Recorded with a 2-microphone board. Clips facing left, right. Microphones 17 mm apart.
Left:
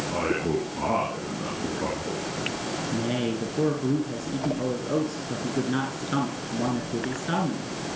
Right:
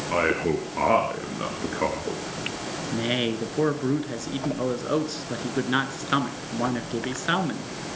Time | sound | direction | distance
0.1 | a man speaking | 65° right (ahead or behind) | 3.5 m
2.9 | a man speaking | 35° right (ahead or behind) | 3 m